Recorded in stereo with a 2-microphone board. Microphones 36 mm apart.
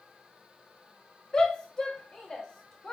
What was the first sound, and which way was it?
A shout, 15° left (ahead or behind).